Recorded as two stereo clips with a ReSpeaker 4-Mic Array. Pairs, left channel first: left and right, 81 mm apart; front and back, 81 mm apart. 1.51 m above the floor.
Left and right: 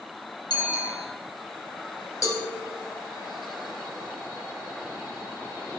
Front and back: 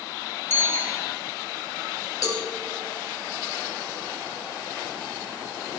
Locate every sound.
0.5 s a bicycle bell: 60° left, 5.5 m
2.2 s a cowbell: 45° left, 4 m